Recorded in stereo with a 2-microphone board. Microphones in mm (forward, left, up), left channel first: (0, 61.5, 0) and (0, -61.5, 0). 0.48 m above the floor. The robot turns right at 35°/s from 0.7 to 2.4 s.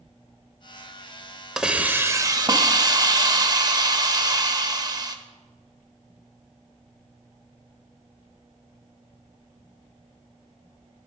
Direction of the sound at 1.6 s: 5° right (ahead or behind).